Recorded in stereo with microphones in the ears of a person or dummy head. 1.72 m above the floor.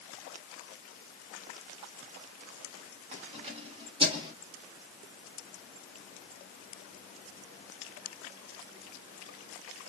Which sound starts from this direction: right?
Keys jangling, at 3.1 s.